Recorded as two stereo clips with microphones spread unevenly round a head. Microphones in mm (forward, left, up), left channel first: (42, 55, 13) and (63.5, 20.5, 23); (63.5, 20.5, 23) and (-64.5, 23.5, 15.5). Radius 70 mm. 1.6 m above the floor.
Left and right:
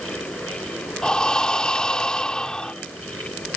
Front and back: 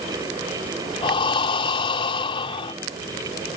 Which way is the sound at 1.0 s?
50° left.